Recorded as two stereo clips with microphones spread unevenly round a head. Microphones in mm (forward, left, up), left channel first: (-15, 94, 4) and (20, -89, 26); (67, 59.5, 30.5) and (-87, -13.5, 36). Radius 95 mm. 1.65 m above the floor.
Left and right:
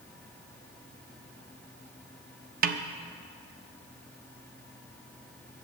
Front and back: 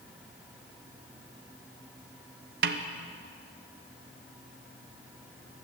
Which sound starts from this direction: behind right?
A snare drum, at 2.6 s.